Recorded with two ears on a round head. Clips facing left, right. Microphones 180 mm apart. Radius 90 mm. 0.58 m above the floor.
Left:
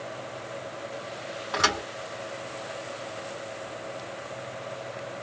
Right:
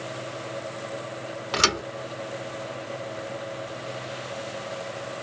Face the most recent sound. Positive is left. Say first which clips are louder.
# right 2 dB
turn(degrees=-40)  # may be behind; listen again after turning